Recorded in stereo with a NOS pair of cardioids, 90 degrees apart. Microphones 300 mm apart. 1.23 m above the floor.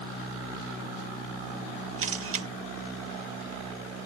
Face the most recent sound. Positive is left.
turn(degrees=-45)